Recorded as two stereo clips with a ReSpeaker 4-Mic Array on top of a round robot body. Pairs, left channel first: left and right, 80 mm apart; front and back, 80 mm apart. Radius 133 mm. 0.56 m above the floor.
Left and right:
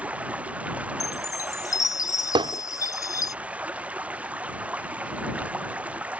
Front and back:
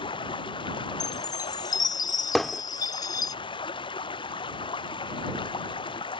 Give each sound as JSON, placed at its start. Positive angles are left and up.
{"t": 0.0, "sound": "running water", "azimuth_deg": -15}
{"t": 1.0, "sound": "a chime", "azimuth_deg": 40}
{"t": 2.4, "sound": "hammering", "azimuth_deg": -85}